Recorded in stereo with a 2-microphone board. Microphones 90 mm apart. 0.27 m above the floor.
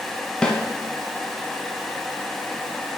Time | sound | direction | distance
0.4 | a snare drum | 10° left (ahead or behind) | 0.8 m